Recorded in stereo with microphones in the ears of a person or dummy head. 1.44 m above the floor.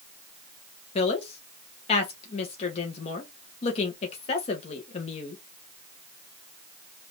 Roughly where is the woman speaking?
Left.